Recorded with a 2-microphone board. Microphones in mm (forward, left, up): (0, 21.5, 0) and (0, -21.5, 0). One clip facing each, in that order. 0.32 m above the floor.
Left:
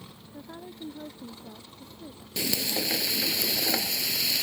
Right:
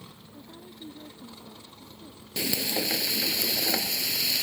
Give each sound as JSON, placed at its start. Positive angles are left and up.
{"t": 0.3, "sound": "a woman speaking", "side_deg": 70}
{"t": 2.4, "sound": "frying", "side_deg": -10}